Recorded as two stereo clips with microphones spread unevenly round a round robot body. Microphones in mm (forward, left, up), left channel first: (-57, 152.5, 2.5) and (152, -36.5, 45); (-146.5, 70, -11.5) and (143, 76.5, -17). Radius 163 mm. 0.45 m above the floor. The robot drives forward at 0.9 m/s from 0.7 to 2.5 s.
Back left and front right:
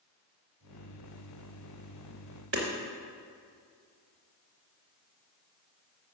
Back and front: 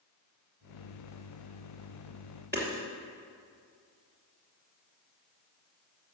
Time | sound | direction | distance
2.5 | hammering | 95° right | 3 m